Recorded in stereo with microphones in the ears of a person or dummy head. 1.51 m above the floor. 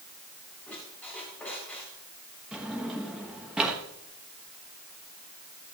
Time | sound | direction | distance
0.7 | a squeak | centre (ahead or behind) | 6 m
2.5 | a drawer | 10° right (ahead or behind) | 1.1 m